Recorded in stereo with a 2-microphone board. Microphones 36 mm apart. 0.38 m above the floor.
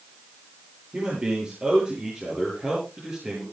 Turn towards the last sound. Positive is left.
turn(degrees=-20)  # may be behind; listen again after turning